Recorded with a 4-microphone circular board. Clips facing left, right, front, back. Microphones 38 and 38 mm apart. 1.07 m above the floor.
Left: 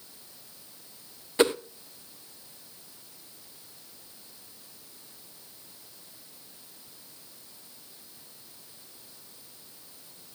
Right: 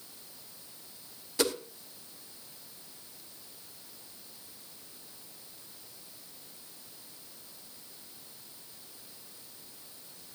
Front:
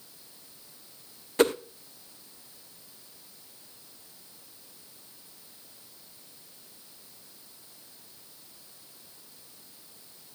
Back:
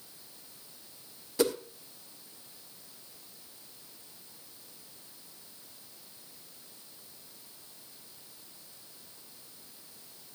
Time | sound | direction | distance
1.4 | a whoosh | 35° left | 0.7 m